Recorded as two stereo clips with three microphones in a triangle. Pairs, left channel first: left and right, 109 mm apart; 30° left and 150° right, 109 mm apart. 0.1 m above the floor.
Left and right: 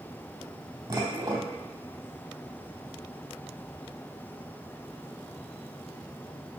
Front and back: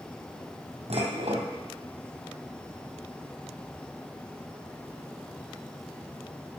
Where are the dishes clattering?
140° right, 2.5 m.